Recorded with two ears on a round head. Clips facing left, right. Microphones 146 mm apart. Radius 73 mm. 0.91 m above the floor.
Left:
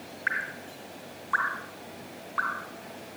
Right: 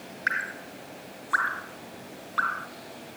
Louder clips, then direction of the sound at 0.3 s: Right 2 dB; 40° right (ahead or behind).